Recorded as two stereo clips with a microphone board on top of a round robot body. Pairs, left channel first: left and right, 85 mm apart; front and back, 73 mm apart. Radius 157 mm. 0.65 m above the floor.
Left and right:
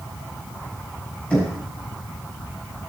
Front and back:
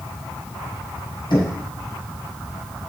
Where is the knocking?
15° left, 4 m.